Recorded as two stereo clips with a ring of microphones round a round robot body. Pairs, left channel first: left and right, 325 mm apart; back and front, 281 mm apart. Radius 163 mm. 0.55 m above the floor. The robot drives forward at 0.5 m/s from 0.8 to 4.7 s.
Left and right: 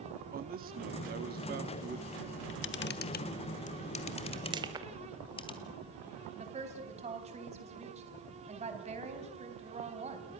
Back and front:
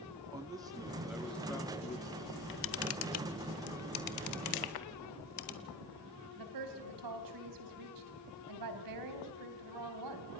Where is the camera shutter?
130° left, 0.7 m; by 5.5 s 165° left, 1.7 m.